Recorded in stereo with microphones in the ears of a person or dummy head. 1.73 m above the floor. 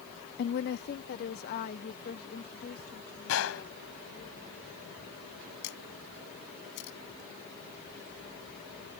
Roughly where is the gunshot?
Left.